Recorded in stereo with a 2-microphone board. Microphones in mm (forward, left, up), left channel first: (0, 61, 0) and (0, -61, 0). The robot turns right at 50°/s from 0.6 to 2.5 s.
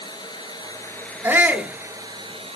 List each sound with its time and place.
0.0 s running water: 140° left, 1.0 m; by 2.6 s 125° right, 1.0 m
1.2 s a shout: 15° right (ahead or behind), 0.8 m